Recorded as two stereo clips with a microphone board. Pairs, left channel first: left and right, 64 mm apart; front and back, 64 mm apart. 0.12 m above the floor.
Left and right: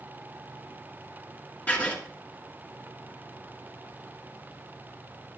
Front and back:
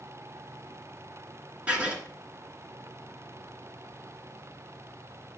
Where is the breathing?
I don't hear breathing.